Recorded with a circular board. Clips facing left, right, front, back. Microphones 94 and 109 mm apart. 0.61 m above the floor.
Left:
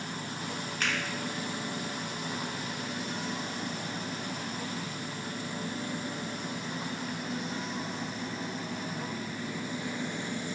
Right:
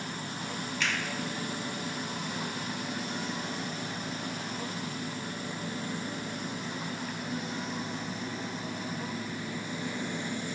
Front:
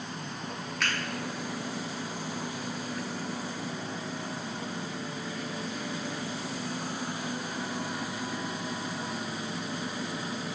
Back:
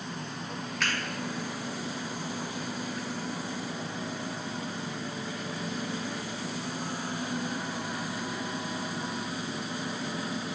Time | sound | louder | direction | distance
0.8 | a finger snap | even, even | 90° left | 0.6 m